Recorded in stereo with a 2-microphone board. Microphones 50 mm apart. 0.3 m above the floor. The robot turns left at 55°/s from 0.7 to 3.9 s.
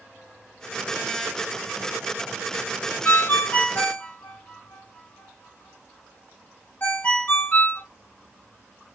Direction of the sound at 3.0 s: 45° left (ahead or behind).